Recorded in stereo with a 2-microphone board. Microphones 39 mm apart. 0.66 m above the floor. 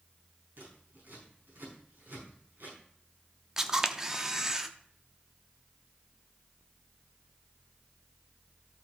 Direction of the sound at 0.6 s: 65° right (ahead or behind).